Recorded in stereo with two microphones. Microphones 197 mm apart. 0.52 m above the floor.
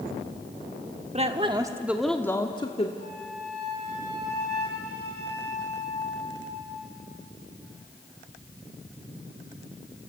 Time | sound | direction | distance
1.1 | a woman speaking | 35° right (ahead or behind) | 1.3 m
3.0 | a flute | 55° left (ahead or behind) | 6.5 m